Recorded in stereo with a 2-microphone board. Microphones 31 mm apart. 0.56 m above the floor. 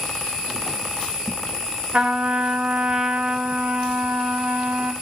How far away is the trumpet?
About 1.2 m.